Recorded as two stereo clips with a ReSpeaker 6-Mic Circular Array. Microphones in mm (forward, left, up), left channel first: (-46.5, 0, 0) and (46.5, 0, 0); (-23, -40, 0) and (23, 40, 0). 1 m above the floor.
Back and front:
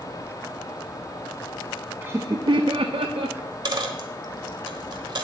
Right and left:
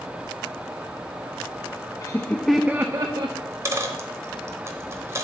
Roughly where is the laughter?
Ahead right.